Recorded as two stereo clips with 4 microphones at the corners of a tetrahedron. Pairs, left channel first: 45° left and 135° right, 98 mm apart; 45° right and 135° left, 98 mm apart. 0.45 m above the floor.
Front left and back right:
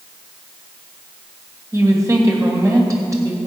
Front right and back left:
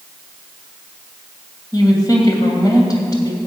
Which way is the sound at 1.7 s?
85° right.